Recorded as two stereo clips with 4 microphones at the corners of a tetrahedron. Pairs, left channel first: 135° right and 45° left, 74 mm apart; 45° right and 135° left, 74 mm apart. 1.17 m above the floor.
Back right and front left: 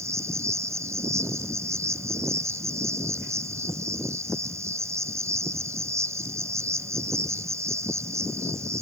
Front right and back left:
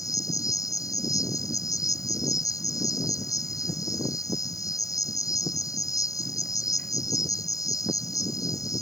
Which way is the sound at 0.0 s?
5° right.